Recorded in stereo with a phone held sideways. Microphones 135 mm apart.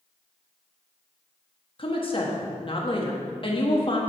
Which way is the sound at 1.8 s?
40° left (ahead or behind).